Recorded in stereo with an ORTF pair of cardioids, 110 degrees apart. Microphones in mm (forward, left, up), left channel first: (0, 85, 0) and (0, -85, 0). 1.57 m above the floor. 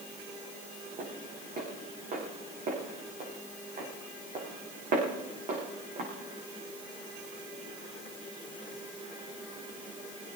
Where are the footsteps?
50° right, 7 m.